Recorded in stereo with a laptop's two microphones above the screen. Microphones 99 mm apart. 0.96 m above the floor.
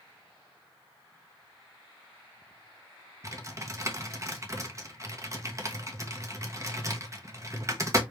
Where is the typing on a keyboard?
30° right (ahead or behind), 0.8 m.